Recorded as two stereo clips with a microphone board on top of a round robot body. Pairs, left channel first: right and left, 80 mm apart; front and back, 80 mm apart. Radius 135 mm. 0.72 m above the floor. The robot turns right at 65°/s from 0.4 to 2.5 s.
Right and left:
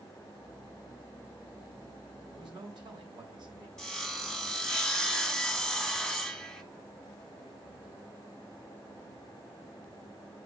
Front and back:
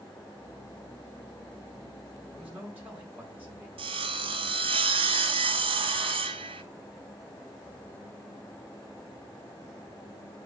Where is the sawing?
Straight behind, 0.9 m.